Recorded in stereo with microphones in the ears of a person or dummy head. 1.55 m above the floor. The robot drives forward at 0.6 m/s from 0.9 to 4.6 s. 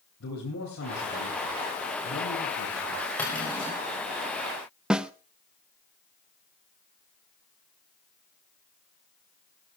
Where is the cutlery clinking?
10° left (ahead or behind), 5.5 m.